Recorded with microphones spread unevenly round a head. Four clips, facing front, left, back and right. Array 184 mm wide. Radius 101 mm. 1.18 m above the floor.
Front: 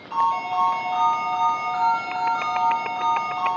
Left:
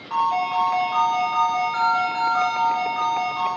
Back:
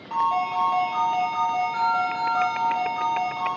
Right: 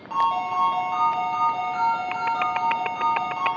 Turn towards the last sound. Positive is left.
turn(degrees=-115)